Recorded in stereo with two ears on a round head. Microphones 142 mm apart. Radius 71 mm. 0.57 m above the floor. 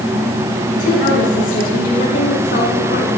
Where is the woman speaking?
60° left (ahead or behind), 5 m.